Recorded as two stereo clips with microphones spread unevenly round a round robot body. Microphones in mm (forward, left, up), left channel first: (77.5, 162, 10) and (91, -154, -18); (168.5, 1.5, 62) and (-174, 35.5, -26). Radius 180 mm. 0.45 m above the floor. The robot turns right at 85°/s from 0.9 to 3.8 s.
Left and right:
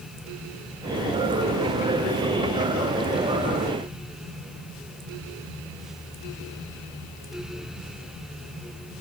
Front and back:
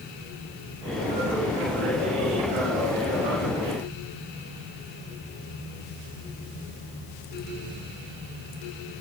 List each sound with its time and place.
Only background noise.